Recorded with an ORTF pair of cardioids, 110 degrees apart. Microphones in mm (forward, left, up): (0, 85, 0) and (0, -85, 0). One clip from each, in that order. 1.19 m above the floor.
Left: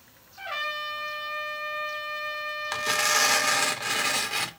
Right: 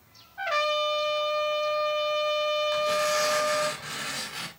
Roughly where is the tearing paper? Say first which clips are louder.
Even; ahead left.